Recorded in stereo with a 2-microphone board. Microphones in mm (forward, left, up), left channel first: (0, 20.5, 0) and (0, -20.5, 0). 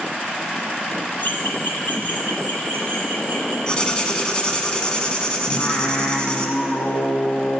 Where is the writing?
20° left (ahead or behind), 1.1 m.